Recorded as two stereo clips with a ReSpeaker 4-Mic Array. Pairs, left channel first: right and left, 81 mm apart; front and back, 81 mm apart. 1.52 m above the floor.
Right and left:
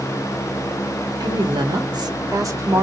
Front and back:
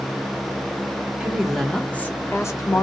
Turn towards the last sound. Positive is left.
turn(degrees=40)